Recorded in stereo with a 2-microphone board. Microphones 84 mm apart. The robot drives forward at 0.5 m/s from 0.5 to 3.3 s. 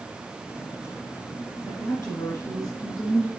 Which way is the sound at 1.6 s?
40° left (ahead or behind).